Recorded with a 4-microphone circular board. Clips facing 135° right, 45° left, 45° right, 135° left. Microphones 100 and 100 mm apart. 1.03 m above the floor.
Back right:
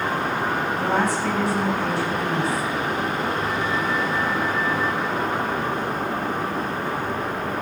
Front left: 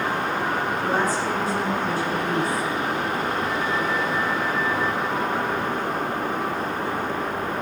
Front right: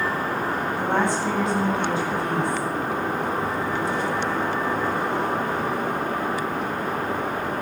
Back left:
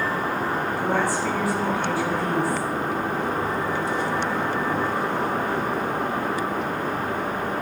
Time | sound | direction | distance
0.8 | a woman speaking | 110° right | 8 m